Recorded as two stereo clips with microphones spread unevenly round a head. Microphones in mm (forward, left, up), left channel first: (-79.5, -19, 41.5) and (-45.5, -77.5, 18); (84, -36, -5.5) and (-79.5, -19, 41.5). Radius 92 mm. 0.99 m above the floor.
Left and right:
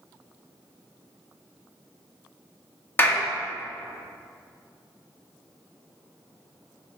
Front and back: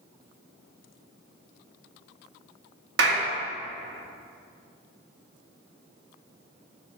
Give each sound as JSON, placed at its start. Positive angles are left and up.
{"t": 3.0, "sound": "a clap", "azimuth_deg": -175, "distance_m": 1.5}